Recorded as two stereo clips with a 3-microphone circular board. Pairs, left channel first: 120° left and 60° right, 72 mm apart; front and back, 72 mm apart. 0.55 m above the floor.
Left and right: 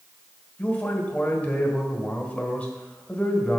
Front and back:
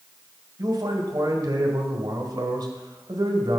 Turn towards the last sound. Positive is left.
turn(degrees=-170)